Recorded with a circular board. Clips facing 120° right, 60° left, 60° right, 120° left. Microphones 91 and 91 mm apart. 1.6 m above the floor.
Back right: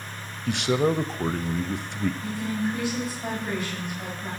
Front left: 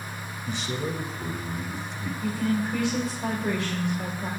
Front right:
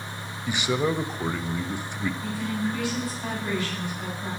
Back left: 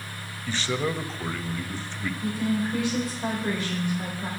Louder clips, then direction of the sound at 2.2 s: Front left 2 dB, back left 2 dB; 55° left.